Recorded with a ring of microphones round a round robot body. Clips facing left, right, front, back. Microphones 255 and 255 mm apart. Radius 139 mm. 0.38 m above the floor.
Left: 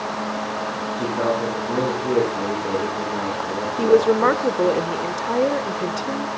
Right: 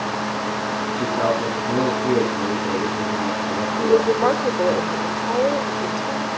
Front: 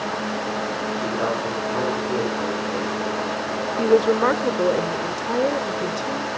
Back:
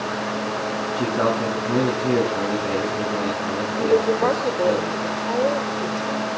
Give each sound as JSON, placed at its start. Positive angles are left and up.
{"t": 0.9, "sound": "a man speaking", "azimuth_deg": 180, "distance_m": 6.0}
{"t": 3.8, "sound": "a woman speaking", "azimuth_deg": 50, "distance_m": 1.1}